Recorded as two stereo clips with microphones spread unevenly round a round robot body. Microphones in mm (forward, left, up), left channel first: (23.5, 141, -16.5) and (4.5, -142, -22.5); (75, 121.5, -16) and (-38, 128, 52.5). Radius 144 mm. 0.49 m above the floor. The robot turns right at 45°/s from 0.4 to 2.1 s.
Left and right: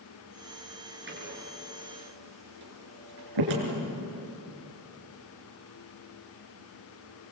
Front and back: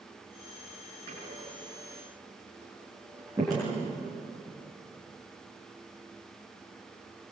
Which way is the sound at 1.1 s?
150° right.